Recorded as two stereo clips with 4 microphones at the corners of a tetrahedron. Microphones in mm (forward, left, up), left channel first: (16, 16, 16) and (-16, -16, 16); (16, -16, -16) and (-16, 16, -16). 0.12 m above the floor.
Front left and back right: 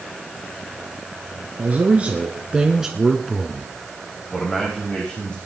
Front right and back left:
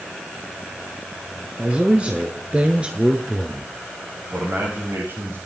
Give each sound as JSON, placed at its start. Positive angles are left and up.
{"t": 1.6, "sound": "a man speaking", "azimuth_deg": -175, "distance_m": 1.8}
{"t": 4.3, "sound": "a man speaking", "azimuth_deg": 115, "distance_m": 8.0}